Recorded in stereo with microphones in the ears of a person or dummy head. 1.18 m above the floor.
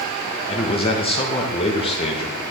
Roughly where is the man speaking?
Left.